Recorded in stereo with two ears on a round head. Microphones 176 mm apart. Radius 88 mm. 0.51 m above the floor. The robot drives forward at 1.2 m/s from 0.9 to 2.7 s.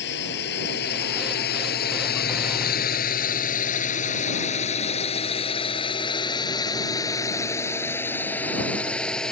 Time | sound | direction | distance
0.0 | a drone | 60° left (ahead or behind) | ?